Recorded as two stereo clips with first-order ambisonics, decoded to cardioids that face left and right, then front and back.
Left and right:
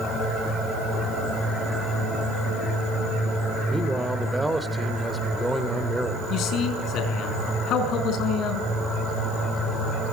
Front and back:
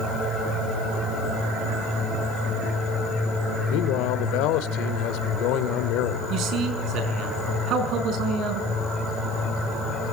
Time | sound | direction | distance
3.7 | a man speaking | 5° right | 2.5 m
6.3 | a man speaking | 135° left | 5.5 m